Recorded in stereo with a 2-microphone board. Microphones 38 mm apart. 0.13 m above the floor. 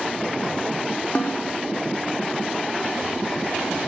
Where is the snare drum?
50° left (ahead or behind), 5 m.